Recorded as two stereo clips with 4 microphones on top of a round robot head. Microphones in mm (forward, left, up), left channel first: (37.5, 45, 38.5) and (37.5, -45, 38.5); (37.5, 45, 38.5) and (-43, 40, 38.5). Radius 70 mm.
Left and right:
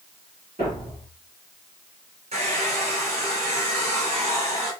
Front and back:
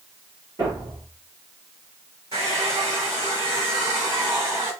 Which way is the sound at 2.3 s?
115° right.